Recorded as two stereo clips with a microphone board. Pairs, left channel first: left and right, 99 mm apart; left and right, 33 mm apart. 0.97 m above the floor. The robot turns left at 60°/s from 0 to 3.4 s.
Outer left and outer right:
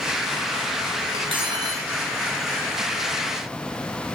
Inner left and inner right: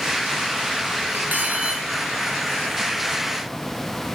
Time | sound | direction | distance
1.1 | cutlery clinking | 105° right | 5.5 m